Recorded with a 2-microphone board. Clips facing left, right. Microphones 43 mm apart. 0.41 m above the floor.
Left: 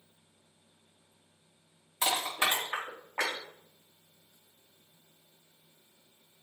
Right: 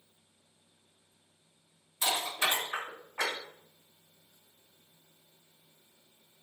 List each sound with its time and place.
2.0 s crushing: 45° left (ahead or behind), 3.5 m